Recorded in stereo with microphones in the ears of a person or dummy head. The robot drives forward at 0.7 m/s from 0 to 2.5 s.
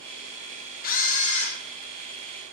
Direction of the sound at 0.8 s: 45° left (ahead or behind).